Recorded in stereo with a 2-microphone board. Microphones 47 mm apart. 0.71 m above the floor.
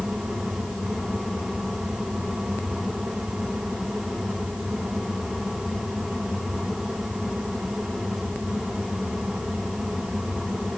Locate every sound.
Only background noise.